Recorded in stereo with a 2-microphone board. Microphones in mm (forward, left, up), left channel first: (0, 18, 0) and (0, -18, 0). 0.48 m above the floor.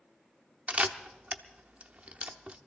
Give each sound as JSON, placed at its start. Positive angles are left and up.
{"t": 0.7, "sound": "a camera shutter", "side_deg": -30, "distance_m": 0.7}